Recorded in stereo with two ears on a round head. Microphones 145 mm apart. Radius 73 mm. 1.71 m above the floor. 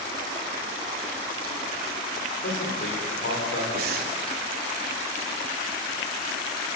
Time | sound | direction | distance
2.4 | a man speaking | 75° left (ahead or behind) | 7 m
3.8 | breathing | 65° right (ahead or behind) | 3 m